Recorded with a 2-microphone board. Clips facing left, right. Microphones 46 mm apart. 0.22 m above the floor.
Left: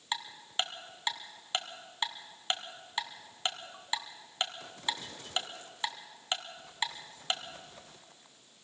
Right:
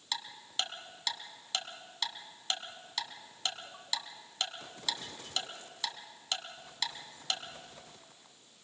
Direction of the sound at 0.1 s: 25° left (ahead or behind).